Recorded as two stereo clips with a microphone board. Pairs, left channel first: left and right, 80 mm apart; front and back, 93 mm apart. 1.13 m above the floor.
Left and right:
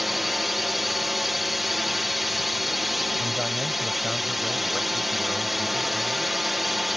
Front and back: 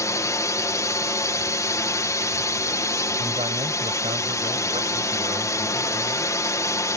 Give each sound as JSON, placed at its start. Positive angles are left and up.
{"t": 0.0, "sound": "a drone", "azimuth_deg": -5}
{"t": 3.2, "sound": "a man speaking", "azimuth_deg": 180}